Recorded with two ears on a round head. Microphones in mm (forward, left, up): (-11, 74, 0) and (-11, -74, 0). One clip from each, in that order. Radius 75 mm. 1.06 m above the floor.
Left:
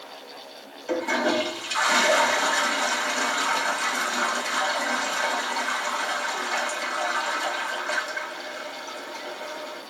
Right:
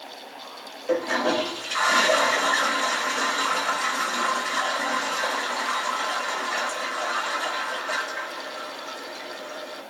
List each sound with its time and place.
0.9 s a toilet flushing: 15° left (ahead or behind), 1.8 m